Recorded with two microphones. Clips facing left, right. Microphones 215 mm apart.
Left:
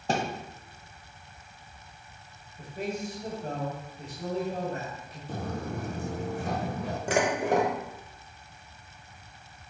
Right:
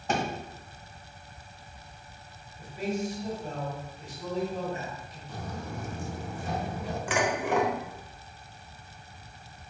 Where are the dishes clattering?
40° left (ahead or behind), 1.0 m.